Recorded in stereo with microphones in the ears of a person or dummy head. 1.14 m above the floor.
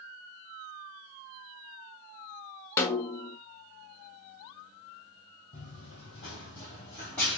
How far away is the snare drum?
About 0.5 m.